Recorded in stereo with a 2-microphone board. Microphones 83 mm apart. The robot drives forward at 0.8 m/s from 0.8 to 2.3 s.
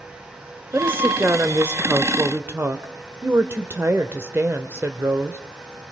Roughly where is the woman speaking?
Right.